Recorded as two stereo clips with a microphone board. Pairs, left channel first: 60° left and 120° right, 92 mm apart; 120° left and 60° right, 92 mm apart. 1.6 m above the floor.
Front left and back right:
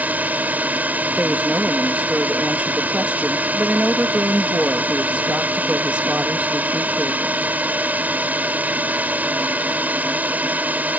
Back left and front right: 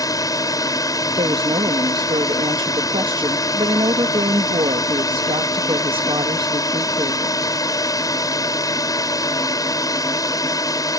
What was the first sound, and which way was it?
A drone, 170° left.